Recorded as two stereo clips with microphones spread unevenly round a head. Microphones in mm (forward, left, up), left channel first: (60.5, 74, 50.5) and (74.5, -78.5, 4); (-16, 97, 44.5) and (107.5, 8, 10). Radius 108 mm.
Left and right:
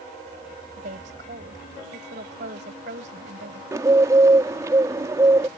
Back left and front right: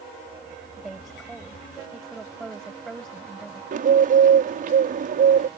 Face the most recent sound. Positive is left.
turn(degrees=-20)